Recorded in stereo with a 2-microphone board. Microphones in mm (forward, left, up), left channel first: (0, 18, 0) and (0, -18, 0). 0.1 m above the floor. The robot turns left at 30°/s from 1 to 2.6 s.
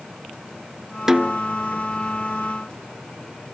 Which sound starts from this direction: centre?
A snare drum, at 1.1 s.